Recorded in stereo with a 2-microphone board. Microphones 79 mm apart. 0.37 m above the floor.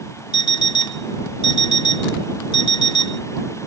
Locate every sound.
0.3 s an alarm clock: 65° left (ahead or behind)